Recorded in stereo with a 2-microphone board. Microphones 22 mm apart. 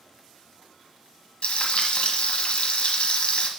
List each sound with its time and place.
1.4 s frying: 70° left (ahead or behind), 1.3 m